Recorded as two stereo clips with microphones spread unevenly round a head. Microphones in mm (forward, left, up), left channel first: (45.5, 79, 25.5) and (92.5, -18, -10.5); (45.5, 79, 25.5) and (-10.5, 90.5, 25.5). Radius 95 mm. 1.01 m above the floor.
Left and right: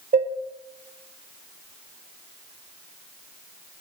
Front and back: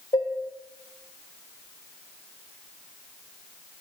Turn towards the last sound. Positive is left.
turn(degrees=-45)